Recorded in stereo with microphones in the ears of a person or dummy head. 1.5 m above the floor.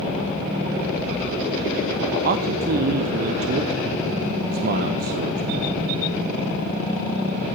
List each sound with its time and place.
2.2 s a man speaking: 45° right (ahead or behind), 0.6 m